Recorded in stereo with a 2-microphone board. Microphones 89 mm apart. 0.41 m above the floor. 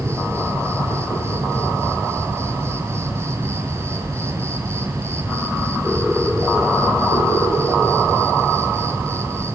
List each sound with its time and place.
0.0 s an insect: 30° right (ahead or behind), 4 m